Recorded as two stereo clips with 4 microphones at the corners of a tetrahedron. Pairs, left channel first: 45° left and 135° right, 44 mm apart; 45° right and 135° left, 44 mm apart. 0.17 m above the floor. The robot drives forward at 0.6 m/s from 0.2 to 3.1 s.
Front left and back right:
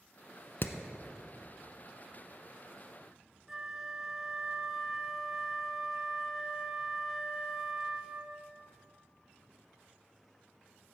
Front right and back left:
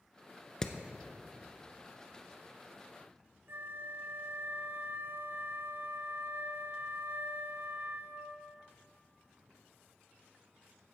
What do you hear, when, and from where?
0.6 s hammering: 25° left, 0.8 m; by 0.8 s 30° left, 0.8 m
3.5 s a flute: 150° left, 0.8 m